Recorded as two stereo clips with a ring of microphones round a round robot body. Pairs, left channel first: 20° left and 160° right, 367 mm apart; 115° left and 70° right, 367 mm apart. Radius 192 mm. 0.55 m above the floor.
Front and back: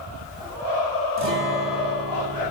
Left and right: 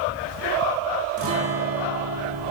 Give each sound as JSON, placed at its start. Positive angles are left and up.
{"t": 1.2, "sound": "a guitar", "azimuth_deg": -110, "distance_m": 1.9}